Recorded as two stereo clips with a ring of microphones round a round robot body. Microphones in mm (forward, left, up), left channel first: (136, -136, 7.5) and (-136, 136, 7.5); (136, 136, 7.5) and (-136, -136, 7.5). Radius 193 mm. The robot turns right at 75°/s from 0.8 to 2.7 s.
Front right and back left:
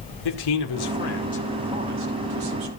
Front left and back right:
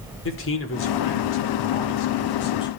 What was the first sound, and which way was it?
A man speaking, 15° right.